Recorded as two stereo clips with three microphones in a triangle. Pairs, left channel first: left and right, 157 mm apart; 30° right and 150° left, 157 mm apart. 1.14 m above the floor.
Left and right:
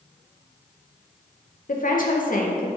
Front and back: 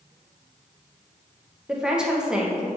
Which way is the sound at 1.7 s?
65° left.